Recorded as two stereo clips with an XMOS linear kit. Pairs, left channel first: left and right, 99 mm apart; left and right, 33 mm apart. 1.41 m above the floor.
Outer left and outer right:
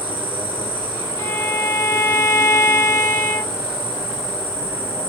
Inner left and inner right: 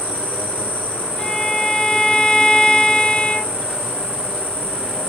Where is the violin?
25° left (ahead or behind), 0.7 m.